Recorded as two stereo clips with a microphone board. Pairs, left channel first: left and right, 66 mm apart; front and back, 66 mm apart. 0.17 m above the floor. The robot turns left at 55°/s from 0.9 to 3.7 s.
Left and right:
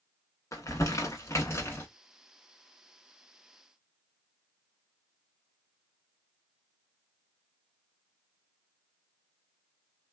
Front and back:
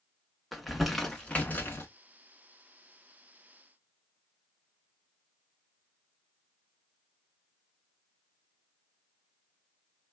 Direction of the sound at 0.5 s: 90° left.